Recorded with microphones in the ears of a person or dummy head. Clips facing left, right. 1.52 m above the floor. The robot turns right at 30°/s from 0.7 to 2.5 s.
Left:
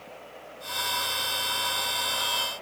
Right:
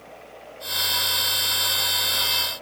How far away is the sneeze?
I don't hear a sneeze.